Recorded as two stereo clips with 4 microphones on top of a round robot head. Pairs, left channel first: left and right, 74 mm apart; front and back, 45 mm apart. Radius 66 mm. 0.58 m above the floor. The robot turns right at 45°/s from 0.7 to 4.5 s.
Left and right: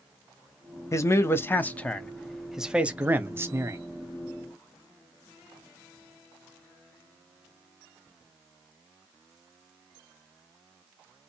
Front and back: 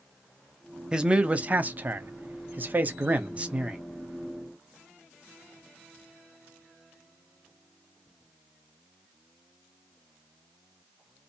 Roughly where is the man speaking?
Behind left.